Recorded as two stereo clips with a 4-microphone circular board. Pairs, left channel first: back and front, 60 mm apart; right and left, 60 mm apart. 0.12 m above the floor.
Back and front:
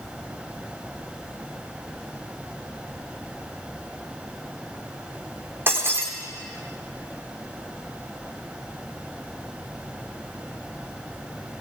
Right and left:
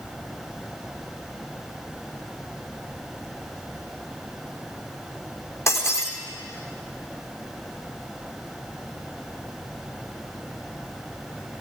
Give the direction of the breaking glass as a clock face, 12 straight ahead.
2 o'clock.